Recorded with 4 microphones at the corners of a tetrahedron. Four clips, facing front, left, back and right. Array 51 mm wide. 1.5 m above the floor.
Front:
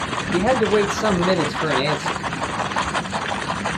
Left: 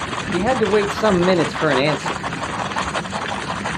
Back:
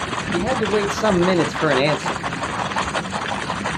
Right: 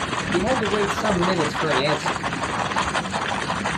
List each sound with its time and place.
0.3 s a man speaking: 50° left, 0.7 m; by 2.2 s 140° left, 1.0 m